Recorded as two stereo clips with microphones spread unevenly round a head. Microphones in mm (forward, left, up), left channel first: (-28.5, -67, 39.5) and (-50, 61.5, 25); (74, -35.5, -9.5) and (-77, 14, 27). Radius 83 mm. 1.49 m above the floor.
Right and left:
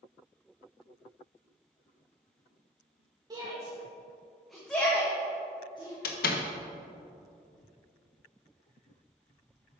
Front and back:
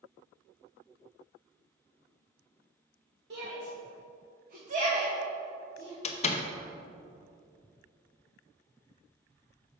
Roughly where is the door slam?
Right.